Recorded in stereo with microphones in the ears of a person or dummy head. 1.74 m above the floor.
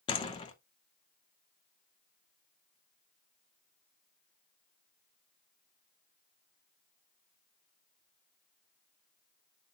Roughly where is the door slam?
Left.